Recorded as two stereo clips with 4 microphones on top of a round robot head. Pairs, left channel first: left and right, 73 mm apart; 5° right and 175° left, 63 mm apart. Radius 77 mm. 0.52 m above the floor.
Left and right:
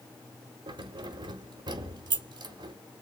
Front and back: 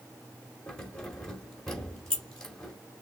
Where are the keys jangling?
90° right, 1.5 m.